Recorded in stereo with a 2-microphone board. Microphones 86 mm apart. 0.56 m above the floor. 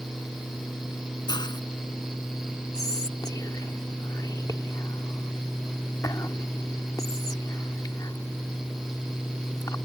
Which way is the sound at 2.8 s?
45° left (ahead or behind).